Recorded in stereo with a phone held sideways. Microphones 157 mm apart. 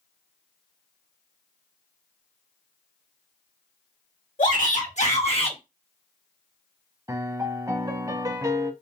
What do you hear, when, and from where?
4.4 s a shout: 60° left (ahead or behind), 1.7 m; by 5.6 s 35° left (ahead or behind), 1.3 m
7.1 s a piano: 25° right (ahead or behind), 0.6 m